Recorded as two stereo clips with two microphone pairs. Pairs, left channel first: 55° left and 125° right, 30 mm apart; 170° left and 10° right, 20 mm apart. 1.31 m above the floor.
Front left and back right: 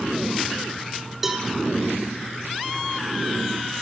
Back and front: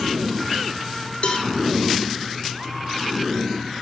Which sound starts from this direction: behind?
A cowbell, at 1.2 s.